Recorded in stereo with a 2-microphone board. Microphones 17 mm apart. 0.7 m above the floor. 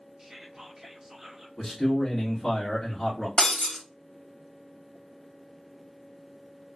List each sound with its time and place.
0.2 s whispering: 25° right (ahead or behind), 0.5 m
1.6 s a man speaking: 10° left (ahead or behind), 1.0 m
3.4 s breaking glass: 60° left (ahead or behind), 1.0 m